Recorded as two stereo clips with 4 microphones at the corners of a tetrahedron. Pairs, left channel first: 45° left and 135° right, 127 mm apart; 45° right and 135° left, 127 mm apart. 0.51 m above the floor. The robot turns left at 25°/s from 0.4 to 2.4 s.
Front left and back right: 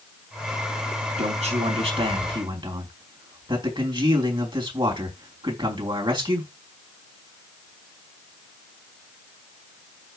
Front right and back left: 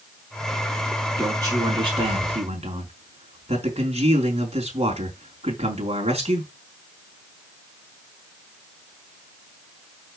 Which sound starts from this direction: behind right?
A man speaking, at 1.2 s.